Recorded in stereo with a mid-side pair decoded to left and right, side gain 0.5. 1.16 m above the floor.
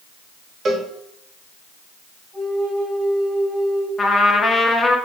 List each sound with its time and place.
0.7 s a cowbell: 50° right, 1.1 m
2.3 s a flute: 30° right, 3.5 m
4.0 s a trumpet: 20° left, 1.3 m